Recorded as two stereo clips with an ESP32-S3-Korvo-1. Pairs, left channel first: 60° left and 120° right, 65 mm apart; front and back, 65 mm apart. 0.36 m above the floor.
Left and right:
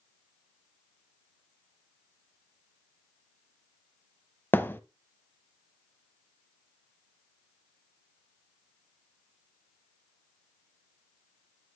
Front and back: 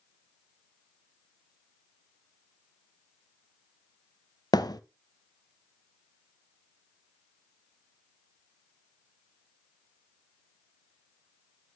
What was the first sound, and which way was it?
A thud, straight ahead.